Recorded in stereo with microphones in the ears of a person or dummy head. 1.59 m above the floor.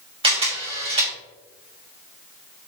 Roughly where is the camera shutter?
Right.